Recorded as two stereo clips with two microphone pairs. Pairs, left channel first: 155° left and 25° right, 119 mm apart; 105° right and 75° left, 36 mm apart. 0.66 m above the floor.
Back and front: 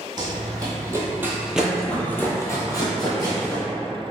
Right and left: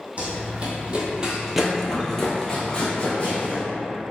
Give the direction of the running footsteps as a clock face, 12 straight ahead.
11 o'clock.